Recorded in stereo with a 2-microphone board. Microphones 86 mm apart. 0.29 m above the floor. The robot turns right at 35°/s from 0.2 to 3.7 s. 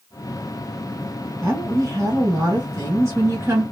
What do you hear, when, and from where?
1.4 s a woman speaking: 125° right, 1.8 m; by 3.6 s 45° right, 1.8 m